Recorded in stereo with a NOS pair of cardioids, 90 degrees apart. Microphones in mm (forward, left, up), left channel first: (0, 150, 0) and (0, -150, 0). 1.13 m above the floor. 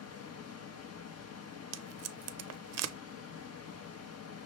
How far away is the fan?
About 1.0 m.